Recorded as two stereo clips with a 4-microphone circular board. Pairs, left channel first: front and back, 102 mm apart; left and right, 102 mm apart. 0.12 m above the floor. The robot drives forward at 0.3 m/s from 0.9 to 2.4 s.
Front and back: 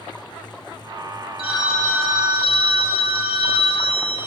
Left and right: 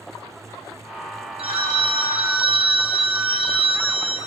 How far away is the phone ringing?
About 3 m.